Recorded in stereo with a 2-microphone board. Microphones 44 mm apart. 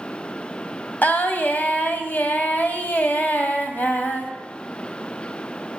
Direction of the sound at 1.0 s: 40° left (ahead or behind).